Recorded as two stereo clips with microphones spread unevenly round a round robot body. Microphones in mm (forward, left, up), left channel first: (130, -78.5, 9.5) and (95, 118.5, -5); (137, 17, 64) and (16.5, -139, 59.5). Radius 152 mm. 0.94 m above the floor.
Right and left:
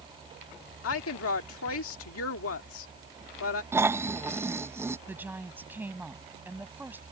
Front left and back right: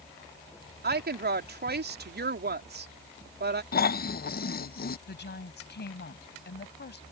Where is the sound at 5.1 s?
20° left.